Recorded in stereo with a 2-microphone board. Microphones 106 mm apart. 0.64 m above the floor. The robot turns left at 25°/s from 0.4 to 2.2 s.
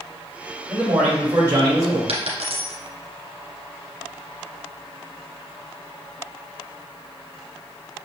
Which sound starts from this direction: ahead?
A man speaking, at 0.7 s.